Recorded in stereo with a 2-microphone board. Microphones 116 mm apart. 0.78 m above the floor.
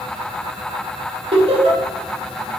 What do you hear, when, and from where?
1.3 s laughter: 50° right (ahead or behind), 1.3 m